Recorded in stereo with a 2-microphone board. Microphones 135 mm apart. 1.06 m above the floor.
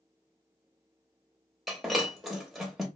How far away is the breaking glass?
About 0.7 m.